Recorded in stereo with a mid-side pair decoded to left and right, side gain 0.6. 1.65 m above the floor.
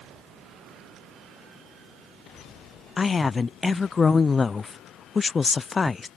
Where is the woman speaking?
25° left.